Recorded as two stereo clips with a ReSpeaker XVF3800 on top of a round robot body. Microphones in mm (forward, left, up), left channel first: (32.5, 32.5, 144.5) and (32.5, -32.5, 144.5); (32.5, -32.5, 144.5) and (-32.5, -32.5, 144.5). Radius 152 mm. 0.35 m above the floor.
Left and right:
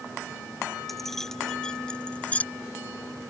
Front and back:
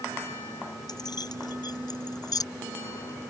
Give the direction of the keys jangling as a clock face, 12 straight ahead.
12 o'clock.